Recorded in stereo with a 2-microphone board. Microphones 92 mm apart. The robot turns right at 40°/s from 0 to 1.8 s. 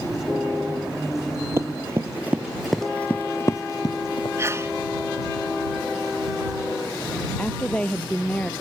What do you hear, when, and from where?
1.6 s running footsteps: 30° right (ahead or behind); by 4.3 s 55° left (ahead or behind)
4.4 s a sneeze: 30° right (ahead or behind)
7.4 s a woman speaking: 15° left (ahead or behind)